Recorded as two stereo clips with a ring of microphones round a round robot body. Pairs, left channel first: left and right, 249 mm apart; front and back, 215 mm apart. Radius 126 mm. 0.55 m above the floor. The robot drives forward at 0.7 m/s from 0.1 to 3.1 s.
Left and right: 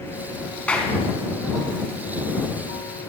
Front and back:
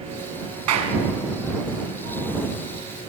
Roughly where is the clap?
Behind.